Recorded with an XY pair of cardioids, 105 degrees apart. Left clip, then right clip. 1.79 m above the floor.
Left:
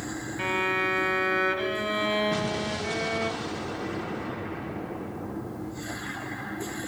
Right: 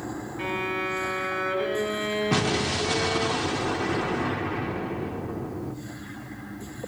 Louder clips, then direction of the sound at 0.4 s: Left 3 dB; 30° left.